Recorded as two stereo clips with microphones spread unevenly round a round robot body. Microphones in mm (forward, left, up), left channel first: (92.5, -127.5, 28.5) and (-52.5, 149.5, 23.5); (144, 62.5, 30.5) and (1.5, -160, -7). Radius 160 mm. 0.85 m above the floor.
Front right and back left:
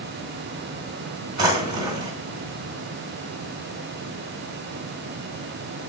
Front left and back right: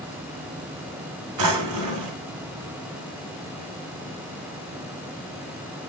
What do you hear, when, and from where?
1.4 s a drawer: 165° right, 2.5 m